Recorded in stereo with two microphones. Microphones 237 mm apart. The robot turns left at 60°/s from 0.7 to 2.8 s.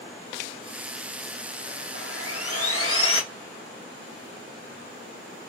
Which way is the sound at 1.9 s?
120° left.